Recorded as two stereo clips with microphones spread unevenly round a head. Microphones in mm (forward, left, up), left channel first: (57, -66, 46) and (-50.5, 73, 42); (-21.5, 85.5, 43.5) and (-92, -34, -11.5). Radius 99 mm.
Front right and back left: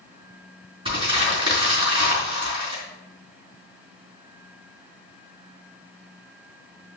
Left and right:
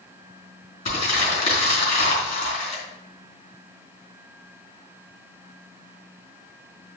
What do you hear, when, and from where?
0.8 s crumpling: 65° left, 4.5 m